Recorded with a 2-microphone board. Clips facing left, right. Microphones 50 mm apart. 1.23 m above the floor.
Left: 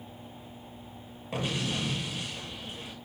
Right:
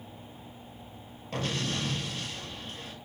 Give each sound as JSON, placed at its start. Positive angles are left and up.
{"t": 1.3, "sound": "an explosion", "side_deg": 10, "distance_m": 6.0}